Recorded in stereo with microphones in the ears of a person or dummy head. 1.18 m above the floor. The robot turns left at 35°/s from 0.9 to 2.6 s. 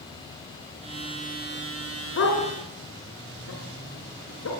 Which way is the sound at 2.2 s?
60° left (ahead or behind).